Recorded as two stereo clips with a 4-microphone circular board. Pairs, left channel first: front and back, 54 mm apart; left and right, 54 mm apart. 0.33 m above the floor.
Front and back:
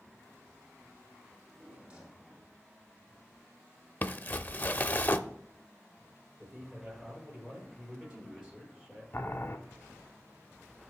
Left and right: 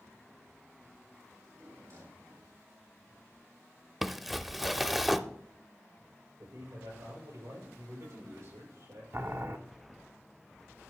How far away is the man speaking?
About 6 m.